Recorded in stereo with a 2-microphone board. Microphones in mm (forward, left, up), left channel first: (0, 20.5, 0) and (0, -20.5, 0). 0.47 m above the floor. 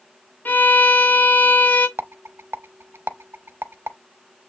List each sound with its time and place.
0.5 s a violin: 50° left (ahead or behind), 0.9 m
2.0 s a rattle: 80° right, 0.6 m